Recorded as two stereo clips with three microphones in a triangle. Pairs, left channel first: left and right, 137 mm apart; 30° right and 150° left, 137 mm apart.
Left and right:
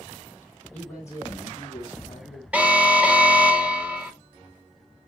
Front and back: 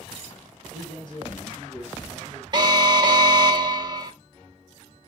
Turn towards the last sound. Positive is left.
turn(degrees=-165)